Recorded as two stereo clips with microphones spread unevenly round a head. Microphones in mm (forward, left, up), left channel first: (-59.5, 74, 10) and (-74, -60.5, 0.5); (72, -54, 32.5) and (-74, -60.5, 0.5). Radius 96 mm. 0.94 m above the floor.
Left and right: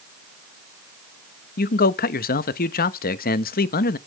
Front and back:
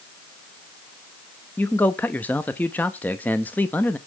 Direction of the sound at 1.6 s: 85° left.